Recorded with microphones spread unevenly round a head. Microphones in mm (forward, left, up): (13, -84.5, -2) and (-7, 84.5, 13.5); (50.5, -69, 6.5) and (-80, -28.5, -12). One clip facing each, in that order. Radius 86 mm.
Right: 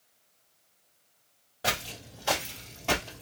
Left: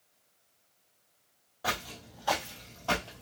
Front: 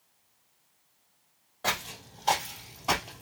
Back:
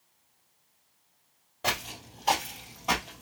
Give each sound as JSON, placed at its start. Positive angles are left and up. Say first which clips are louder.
{"t": 1.6, "sound": "footsteps", "louder": "right 2 dB, back 1 dB", "azimuth_deg": -125, "distance_m": 1.5}